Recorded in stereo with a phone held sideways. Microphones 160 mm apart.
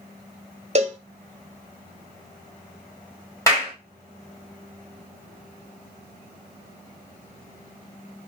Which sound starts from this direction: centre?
A clap, at 3.5 s.